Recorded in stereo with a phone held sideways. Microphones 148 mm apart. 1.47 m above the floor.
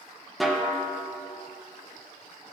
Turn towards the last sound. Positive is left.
turn(degrees=0)  # may be behind; listen again after turning